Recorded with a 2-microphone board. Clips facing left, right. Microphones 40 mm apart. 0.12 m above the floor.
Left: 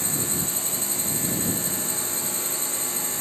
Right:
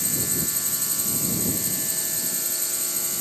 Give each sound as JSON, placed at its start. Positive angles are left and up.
{"t": 0.0, "sound": "a drone", "side_deg": 35}